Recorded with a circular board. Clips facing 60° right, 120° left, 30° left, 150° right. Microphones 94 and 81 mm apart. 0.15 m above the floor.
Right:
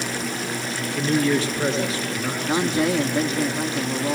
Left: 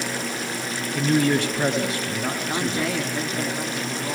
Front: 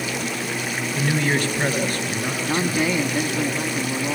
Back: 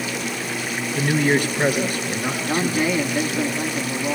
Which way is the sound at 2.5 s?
50° right.